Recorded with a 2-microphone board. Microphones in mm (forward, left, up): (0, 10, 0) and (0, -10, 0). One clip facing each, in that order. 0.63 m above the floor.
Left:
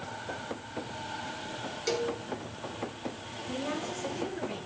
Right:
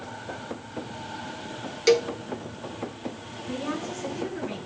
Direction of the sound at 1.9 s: 40° right (ahead or behind).